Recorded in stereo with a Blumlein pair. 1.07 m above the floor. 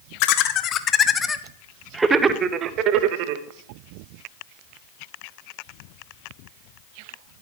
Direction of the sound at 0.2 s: 45° left.